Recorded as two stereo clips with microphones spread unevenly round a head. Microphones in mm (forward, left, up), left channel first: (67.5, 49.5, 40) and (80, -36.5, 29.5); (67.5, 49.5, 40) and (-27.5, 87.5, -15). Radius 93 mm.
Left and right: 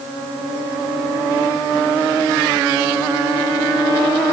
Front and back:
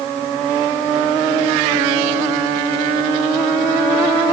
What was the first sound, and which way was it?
Only background noise.